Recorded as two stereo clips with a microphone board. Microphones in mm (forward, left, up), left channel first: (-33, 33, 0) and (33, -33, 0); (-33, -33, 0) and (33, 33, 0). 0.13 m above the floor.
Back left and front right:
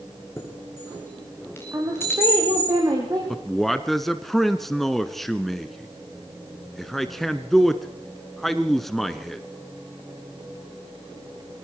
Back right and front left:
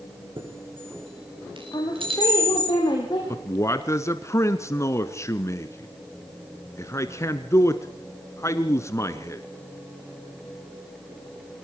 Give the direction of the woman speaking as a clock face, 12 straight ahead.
3 o'clock.